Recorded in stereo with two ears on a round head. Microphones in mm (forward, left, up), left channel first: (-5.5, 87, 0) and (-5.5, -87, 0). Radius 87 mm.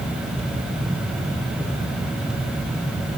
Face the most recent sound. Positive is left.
No sound to turn to.